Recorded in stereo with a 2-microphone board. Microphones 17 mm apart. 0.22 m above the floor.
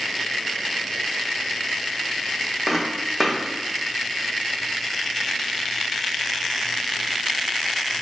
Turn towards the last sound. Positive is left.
turn(degrees=-20)  # may be behind; listen again after turning